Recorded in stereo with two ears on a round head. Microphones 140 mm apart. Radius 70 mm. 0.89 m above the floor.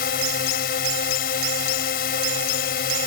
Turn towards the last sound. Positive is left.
turn(degrees=60)  # may be behind; listen again after turning